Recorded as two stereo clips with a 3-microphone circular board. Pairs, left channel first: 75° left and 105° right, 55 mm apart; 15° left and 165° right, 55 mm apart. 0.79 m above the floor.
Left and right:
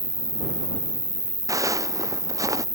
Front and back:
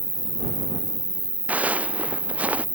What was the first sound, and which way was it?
An insect, 95° right.